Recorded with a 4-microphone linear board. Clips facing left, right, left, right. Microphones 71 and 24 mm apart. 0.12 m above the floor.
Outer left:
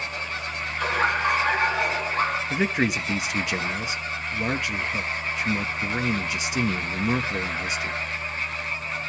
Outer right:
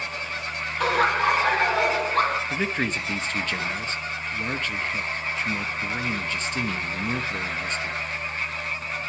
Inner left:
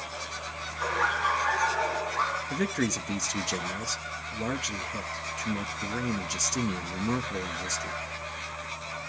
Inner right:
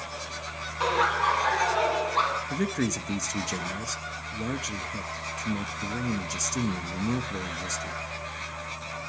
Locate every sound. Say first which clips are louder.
0.8 s laughter: outer right 2 dB, inner right 3 dB; 60° right (ahead or behind), 3.5 m
2.5 s a man speaking: outer left 2 dB, even; 10° left (ahead or behind), 1.2 m